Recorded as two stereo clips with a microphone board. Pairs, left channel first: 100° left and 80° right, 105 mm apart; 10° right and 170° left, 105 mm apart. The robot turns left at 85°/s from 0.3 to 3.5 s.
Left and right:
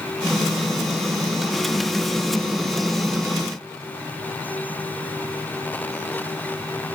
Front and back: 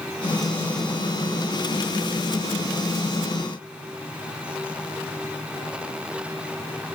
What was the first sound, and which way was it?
Only background noise.